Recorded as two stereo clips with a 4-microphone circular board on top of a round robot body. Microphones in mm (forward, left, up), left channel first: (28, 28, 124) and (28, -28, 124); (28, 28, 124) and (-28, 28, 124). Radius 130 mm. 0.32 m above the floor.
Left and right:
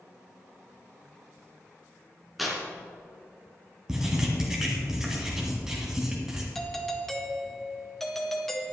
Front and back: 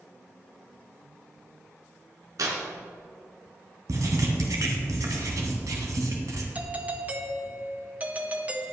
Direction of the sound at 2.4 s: 175° right.